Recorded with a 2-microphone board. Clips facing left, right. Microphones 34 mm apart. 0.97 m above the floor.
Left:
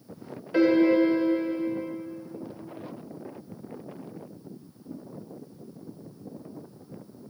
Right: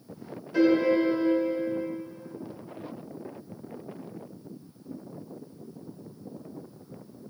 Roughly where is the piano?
Left.